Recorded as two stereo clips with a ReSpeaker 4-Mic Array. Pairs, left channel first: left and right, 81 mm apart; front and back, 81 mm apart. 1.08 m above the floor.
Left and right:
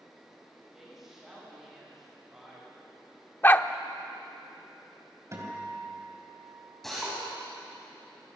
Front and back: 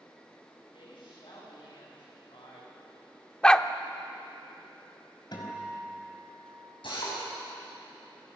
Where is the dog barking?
65° left, 0.7 m.